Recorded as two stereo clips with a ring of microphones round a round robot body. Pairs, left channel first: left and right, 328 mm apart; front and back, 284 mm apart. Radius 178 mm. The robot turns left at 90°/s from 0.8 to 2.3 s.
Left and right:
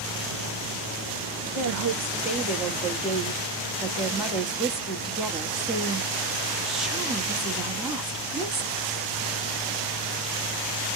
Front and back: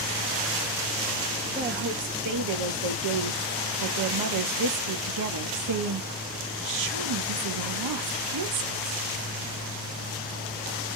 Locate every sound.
1.5 s a woman speaking: 110° right, 1.8 m; by 9.0 s straight behind, 1.8 m